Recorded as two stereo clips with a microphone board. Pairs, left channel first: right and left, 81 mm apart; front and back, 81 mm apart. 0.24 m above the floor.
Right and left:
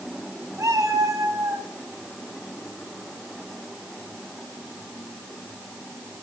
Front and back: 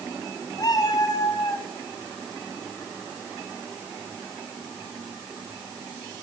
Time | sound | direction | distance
0.6 | a cat meowing | 40° left | 4.5 m